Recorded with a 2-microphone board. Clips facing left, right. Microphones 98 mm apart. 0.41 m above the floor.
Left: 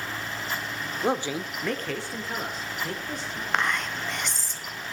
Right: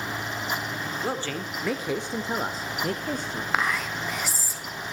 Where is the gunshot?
No gunshot in this recording.